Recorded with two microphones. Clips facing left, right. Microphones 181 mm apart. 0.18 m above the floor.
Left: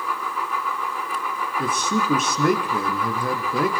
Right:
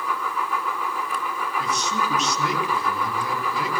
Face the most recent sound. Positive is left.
turn(degrees=50)  # may be behind; listen again after turning